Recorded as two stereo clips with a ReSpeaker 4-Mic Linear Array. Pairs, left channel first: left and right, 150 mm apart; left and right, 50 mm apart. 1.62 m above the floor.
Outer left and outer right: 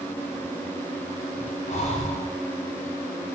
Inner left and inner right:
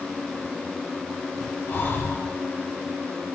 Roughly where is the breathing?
Left.